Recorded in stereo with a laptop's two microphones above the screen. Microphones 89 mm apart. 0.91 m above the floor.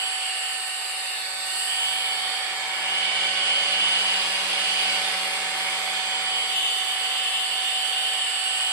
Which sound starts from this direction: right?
A machine running, at 0.0 s.